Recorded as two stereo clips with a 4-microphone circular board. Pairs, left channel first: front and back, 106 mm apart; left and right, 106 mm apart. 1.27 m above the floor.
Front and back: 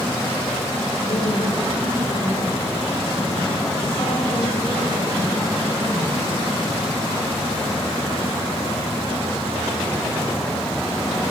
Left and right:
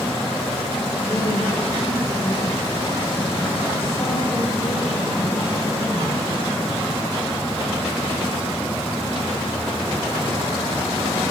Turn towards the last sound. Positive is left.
turn(degrees=65)